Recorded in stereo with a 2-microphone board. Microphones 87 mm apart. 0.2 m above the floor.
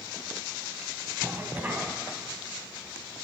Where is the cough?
20° right (ahead or behind), 1.3 m.